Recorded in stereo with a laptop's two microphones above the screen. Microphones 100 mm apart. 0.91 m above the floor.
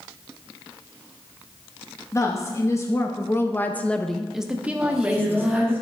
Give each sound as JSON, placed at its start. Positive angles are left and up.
{"t": 2.1, "sound": "a woman speaking", "side_deg": 30, "distance_m": 1.2}
{"t": 4.8, "sound": "singing", "side_deg": -5, "distance_m": 3.0}